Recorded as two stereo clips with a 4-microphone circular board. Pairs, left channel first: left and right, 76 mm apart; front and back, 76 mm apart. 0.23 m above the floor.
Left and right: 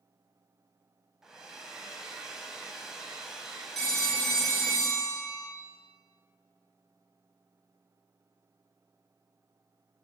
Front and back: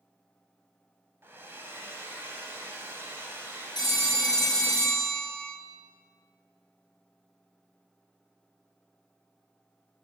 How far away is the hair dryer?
About 0.6 m.